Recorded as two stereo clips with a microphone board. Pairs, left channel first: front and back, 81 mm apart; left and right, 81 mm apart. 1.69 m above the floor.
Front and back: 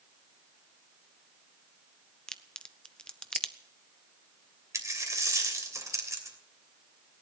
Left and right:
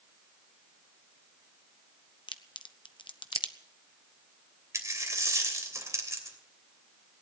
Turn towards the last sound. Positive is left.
turn(degrees=-135)